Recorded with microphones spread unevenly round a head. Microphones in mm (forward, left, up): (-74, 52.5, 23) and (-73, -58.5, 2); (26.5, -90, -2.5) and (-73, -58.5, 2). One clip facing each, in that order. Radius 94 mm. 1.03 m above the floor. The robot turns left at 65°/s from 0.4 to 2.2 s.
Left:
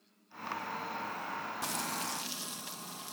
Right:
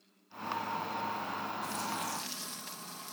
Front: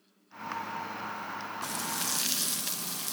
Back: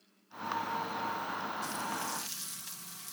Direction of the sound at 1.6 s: 45° left.